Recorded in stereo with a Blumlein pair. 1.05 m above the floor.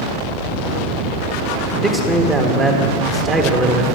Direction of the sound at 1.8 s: 15° right.